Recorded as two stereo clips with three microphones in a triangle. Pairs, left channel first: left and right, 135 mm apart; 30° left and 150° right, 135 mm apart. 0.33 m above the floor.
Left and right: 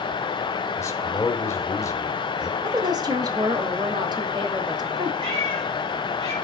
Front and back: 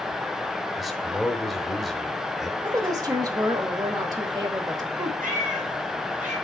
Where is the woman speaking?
115° right, 1.0 m.